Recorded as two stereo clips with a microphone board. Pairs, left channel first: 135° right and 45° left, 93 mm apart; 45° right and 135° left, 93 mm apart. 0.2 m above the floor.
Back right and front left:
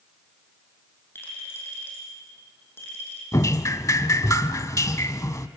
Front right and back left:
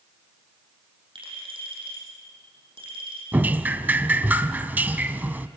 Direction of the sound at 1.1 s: 160° left.